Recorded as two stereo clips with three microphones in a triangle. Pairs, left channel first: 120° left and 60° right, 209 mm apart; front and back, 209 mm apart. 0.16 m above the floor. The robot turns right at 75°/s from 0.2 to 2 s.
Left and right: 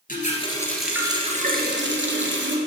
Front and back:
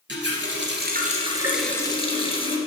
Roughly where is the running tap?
Behind.